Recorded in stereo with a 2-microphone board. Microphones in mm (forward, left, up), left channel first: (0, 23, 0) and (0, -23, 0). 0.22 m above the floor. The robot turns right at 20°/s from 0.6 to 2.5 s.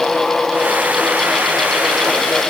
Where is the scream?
I don't hear a scream.